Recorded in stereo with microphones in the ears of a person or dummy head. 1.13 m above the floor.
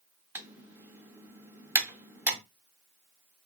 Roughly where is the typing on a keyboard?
Centre.